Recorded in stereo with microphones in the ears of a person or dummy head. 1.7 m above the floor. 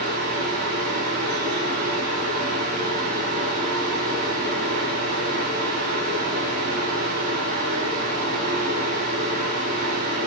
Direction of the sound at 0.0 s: 45° right (ahead or behind).